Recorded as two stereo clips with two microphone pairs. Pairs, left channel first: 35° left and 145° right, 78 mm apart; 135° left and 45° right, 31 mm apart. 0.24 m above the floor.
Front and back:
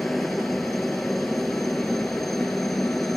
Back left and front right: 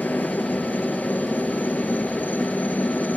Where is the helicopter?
120° left.